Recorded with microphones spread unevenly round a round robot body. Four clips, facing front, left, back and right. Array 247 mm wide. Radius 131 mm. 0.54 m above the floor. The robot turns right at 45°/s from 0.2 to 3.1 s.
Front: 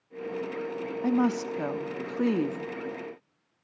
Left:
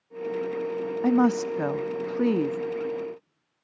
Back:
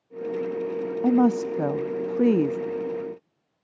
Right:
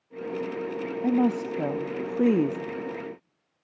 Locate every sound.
1.0 s a woman speaking: 150° left, 0.6 m; by 2.6 s 140° right, 0.6 m